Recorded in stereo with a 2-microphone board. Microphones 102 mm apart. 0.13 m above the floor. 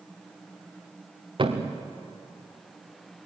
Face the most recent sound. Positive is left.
turn(degrees=-50)  # may be behind; listen again after turning